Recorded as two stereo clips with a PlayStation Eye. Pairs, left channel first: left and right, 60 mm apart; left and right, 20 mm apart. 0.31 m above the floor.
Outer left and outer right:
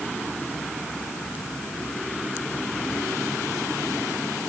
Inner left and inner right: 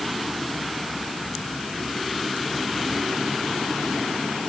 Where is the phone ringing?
I don't hear a phone ringing.